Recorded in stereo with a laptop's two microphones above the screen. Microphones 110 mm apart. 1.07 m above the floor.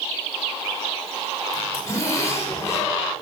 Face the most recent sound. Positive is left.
turn(degrees=25)  # may be behind; listen again after turning